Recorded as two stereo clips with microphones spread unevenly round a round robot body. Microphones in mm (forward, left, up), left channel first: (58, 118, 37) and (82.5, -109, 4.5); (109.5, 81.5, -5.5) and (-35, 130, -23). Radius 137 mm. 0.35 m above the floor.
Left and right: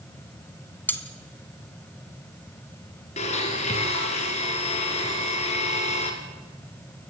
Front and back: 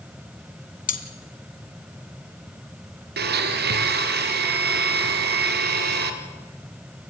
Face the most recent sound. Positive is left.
turn(degrees=165)